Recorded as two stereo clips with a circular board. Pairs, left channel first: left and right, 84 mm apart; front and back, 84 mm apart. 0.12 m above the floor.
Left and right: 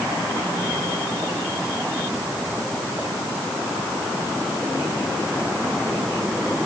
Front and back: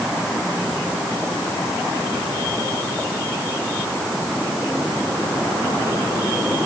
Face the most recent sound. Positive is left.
No sound to turn to.